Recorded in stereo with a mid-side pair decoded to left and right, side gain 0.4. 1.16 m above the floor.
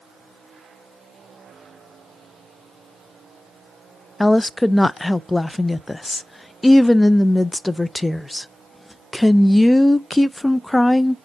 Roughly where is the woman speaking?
Ahead.